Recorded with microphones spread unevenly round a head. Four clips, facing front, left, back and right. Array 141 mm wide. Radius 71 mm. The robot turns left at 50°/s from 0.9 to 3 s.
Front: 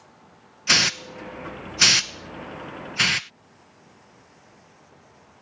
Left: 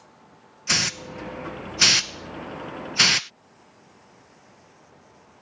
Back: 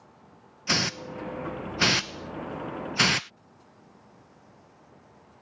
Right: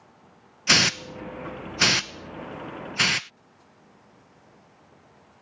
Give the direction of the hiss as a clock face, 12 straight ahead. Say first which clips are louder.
Right 5 dB, front 3 dB; 3 o'clock.